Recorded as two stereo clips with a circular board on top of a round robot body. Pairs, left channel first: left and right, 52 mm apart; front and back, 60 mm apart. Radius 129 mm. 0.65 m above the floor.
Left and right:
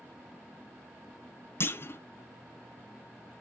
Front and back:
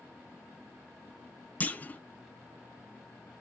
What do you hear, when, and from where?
1.6 s a clunk: 60° left, 1.0 m